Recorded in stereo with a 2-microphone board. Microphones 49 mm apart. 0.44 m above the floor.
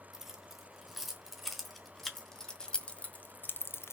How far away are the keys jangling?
About 4.5 m.